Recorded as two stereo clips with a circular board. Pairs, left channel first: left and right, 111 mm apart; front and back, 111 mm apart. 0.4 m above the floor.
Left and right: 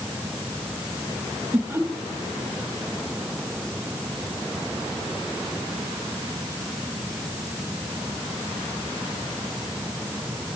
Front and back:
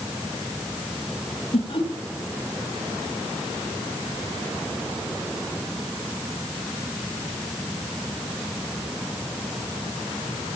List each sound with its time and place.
1.5 s laughter: 15° right, 2.5 m